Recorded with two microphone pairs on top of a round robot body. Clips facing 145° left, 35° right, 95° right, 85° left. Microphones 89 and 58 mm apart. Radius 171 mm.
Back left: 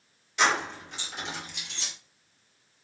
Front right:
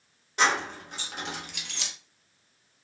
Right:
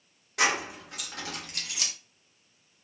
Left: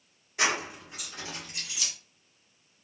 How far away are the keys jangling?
About 1.2 m.